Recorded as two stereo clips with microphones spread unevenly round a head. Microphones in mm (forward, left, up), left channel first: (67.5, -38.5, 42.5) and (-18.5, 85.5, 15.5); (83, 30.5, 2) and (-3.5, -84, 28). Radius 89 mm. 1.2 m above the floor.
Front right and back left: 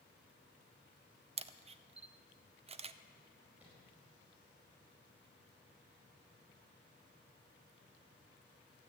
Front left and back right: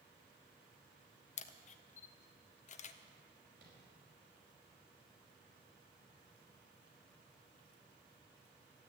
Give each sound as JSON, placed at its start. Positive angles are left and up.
{"t": 1.4, "sound": "a camera shutter", "azimuth_deg": 85, "distance_m": 0.5}
{"t": 3.6, "sound": "tapping", "azimuth_deg": -150, "distance_m": 5.0}